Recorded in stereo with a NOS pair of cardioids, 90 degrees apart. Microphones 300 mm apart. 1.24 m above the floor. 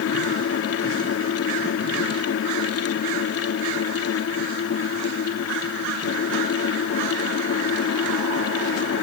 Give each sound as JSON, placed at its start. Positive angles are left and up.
{"t": 0.0, "sound": "a fan", "azimuth_deg": 55}